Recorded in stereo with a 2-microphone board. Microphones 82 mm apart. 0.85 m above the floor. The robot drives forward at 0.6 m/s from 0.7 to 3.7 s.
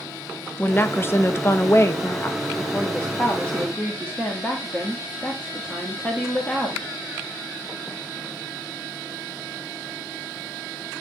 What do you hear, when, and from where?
0.6 s a woman speaking: 25° left (ahead or behind), 0.8 m; by 6.9 s 10° left (ahead or behind), 1.4 m